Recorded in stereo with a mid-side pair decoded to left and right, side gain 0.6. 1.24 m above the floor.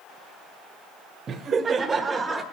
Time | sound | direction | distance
1.3 | laughter | 40° right | 1.3 m